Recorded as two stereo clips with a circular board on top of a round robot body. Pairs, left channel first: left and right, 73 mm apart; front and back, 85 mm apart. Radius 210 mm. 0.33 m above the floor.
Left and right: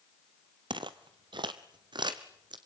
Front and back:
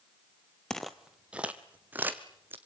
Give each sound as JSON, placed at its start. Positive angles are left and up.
{"t": 0.7, "sound": "footsteps", "azimuth_deg": -80, "distance_m": 0.6}